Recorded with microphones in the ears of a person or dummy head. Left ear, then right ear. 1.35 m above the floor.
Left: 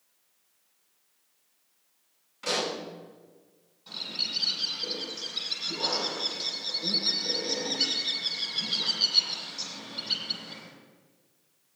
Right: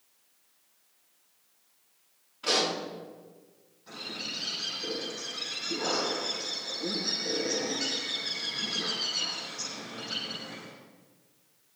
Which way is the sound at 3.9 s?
45° left (ahead or behind).